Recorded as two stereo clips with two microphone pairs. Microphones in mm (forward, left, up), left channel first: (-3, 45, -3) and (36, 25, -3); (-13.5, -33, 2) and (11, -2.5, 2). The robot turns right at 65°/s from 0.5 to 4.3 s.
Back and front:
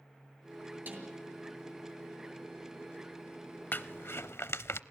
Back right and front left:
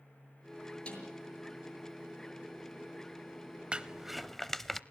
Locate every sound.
0.9 s a snare drum: 70° right, 6.5 m; by 1.1 s 55° right, 6.5 m
3.7 s crumpling: 110° left, 0.6 m; by 4.8 s 150° left, 0.6 m